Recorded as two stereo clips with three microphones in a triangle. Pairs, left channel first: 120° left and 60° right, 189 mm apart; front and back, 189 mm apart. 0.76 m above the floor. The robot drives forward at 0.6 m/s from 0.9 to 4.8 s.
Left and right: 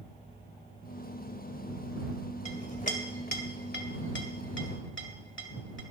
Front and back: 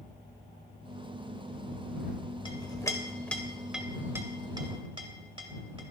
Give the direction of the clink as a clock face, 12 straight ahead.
10 o'clock.